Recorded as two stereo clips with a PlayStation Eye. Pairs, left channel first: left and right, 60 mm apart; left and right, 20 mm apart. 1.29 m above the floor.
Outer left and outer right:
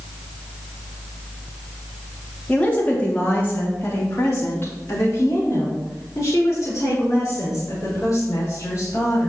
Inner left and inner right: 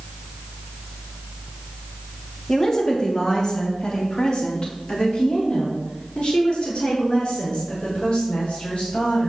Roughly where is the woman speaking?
Left.